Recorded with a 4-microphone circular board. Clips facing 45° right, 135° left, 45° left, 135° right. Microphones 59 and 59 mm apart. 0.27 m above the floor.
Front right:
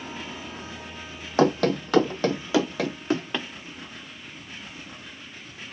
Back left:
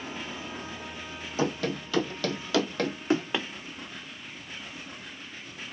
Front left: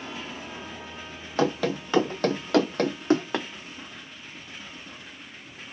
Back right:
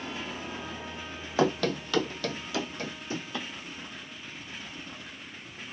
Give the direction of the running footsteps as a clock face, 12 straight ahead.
2 o'clock.